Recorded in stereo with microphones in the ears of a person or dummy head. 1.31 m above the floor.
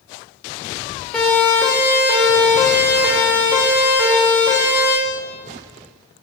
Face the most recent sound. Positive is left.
turn(degrees=-10)  # may be behind; listen again after turning